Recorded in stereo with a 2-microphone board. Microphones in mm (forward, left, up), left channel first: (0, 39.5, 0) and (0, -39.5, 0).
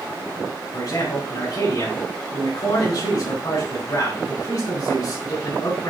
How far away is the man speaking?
About 3.5 m.